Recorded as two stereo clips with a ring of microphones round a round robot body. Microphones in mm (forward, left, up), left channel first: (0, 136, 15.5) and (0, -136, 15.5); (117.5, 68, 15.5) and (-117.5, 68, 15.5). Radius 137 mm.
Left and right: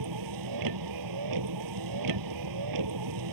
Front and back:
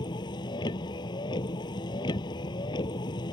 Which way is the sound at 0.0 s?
75° right.